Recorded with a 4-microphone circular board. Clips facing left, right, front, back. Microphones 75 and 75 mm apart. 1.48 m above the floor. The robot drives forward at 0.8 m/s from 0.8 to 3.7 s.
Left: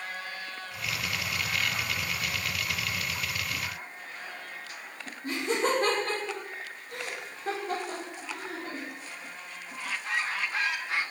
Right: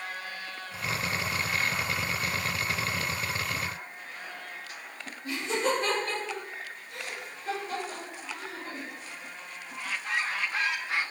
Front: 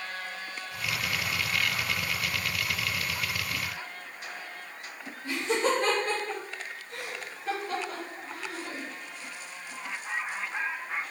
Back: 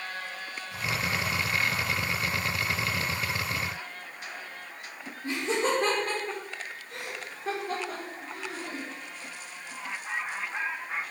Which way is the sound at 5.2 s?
135° left.